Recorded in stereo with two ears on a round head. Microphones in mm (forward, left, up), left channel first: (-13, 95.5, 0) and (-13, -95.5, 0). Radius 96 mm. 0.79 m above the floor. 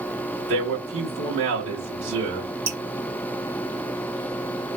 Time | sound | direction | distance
0.5 | a man speaking | 65° right (ahead or behind) | 1.8 m
2.7 | dripping | 75° right (ahead or behind) | 1.2 m